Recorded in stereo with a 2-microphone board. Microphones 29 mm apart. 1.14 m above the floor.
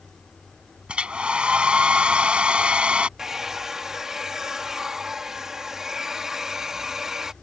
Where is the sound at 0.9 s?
35° right (ahead or behind).